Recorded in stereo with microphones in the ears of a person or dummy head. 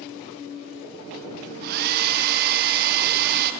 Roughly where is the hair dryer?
Right.